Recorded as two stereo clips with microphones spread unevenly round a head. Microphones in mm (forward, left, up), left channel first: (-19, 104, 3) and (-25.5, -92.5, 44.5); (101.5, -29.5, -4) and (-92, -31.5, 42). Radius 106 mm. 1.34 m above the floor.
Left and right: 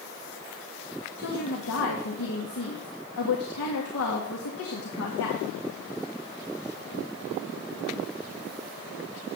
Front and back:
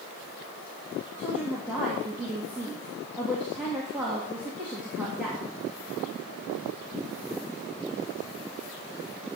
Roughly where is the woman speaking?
Left.